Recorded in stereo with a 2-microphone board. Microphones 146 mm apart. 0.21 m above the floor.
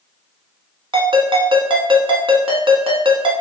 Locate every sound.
0.9 s a ringtone: 35° right (ahead or behind), 1.0 m